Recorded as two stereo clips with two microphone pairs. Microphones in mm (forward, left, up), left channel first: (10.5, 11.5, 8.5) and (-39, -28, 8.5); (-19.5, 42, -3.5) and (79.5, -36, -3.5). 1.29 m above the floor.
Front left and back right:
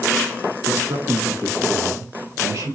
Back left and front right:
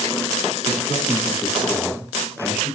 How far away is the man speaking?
About 2 m.